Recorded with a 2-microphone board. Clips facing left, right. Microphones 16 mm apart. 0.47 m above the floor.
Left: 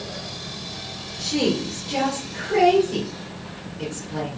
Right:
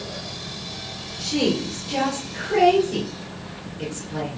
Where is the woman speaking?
5° right (ahead or behind), 1.1 m.